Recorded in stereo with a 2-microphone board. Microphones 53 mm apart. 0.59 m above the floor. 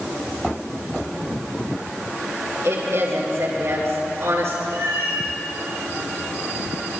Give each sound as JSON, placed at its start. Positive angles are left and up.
{"t": 2.6, "sound": "a woman speaking", "side_deg": -60, "distance_m": 8.5}
{"t": 4.7, "sound": "a cat meowing", "side_deg": -85, "distance_m": 7.5}